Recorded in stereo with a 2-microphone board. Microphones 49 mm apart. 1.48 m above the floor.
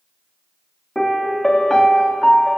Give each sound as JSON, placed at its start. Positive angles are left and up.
{"t": 0.9, "sound": "a piano", "side_deg": 10, "distance_m": 1.0}